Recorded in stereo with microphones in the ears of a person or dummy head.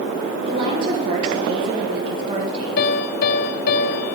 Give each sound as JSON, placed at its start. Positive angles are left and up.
{"t": 0.5, "sound": "a woman speaking", "side_deg": -25, "distance_m": 1.5}
{"t": 2.8, "sound": "a piano", "side_deg": 50, "distance_m": 0.6}